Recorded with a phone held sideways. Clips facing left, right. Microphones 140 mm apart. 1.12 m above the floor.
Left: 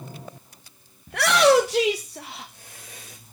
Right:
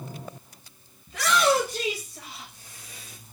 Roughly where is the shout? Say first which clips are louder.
Left 5 dB; left.